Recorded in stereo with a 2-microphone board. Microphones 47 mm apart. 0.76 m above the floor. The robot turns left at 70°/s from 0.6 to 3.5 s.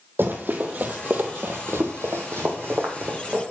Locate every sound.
0.2 s running footsteps: 50° right (ahead or behind), 1.5 m; by 3.4 s 30° right (ahead or behind), 2 m